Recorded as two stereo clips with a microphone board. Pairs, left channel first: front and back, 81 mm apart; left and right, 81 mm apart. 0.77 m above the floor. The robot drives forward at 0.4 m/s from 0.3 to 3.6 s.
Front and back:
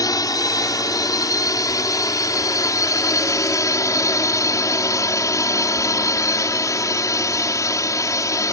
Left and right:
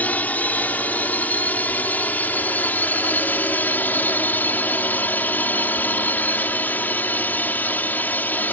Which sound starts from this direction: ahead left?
A drone, at 0.0 s.